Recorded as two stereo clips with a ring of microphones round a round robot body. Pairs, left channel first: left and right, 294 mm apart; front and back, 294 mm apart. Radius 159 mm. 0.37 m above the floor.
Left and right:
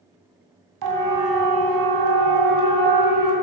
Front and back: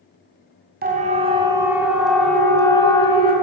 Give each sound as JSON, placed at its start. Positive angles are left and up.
{"t": 0.8, "sound": "a siren", "azimuth_deg": -120, "distance_m": 2.5}